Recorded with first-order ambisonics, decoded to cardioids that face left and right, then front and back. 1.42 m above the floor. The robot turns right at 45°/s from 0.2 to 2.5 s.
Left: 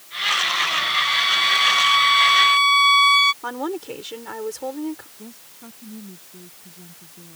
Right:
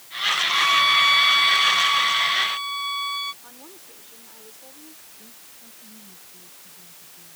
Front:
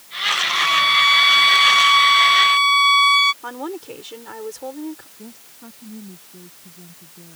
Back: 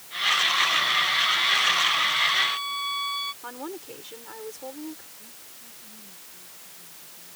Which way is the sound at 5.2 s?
40° left.